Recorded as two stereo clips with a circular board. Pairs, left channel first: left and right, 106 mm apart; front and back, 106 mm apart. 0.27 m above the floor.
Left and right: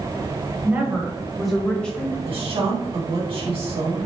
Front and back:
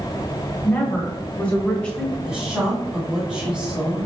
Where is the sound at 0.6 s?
45° right, 1.3 m; by 2.1 s 60° left, 1.2 m.